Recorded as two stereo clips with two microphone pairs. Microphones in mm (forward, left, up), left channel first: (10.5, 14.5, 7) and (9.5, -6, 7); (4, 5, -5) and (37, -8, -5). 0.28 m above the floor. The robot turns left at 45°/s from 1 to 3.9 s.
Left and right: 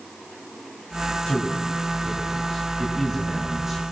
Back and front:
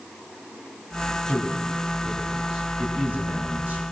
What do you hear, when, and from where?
1.3 s a man speaking: 90° left, 2.5 m; by 3.8 s 30° right, 2.5 m